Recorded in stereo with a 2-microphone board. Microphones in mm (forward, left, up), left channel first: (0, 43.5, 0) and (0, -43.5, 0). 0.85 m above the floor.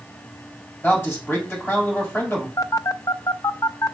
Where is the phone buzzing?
40° left (ahead or behind), 0.5 m.